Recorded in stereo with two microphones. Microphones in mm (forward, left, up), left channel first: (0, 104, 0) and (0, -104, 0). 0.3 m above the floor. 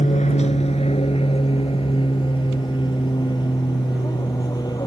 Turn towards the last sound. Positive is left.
turn(degrees=20)  # may be behind; listen again after turning